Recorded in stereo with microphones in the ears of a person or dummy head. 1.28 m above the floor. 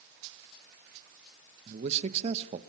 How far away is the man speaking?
About 0.9 m.